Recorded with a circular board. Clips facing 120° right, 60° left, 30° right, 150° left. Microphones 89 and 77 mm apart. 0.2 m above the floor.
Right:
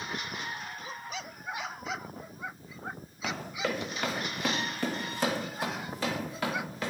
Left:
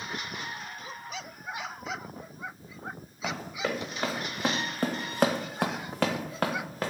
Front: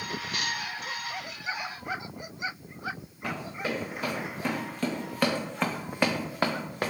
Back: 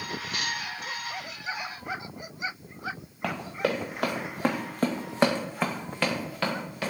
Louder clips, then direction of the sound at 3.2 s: Left 1 dB, back 4 dB; 135° left.